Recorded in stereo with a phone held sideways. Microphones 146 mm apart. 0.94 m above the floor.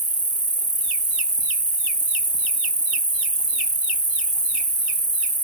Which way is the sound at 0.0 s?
55° right (ahead or behind).